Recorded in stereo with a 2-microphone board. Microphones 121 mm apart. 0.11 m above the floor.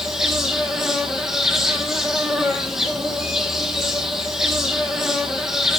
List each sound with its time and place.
0.0 s an insect: 5° right (ahead or behind), 1.2 m